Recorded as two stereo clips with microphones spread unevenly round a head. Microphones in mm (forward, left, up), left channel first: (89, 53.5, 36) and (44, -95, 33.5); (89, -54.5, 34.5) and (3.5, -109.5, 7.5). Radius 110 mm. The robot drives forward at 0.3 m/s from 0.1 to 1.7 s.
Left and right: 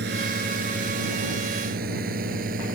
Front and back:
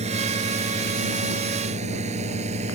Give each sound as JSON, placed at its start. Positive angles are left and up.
{"t": 0.0, "sound": "a drone", "azimuth_deg": -145}